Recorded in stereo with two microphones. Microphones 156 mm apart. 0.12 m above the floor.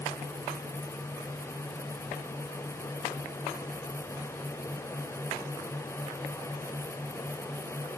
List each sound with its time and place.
Only background noise.